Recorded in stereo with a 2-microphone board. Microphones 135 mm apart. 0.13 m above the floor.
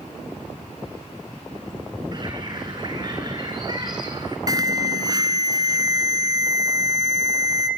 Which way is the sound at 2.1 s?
30° right (ahead or behind).